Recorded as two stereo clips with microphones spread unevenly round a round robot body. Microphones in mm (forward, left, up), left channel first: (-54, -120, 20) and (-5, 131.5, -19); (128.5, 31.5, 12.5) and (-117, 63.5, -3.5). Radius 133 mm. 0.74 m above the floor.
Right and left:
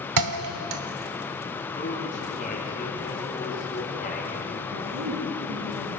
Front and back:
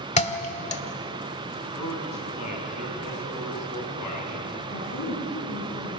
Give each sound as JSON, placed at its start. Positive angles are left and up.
{"t": 0.2, "sound": "a thud", "azimuth_deg": 55, "distance_m": 1.8}
{"t": 1.8, "sound": "a man speaking", "azimuth_deg": -40, "distance_m": 7.5}
{"t": 4.7, "sound": "a woman speaking", "azimuth_deg": 35, "distance_m": 8.5}